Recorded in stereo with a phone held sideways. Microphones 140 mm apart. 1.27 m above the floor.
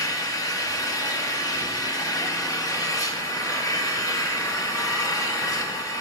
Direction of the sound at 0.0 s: 25° left (ahead or behind).